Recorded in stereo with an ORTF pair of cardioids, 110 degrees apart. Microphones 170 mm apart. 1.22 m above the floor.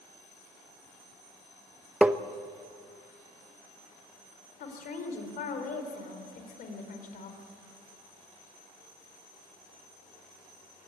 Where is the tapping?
10° right, 0.8 m.